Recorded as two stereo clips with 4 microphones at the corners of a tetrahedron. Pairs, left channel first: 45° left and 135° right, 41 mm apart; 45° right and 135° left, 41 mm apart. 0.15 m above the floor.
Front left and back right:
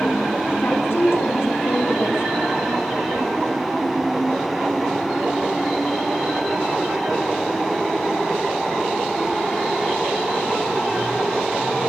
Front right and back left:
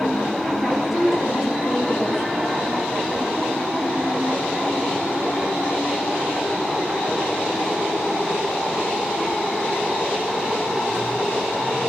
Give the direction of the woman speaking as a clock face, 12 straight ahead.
10 o'clock.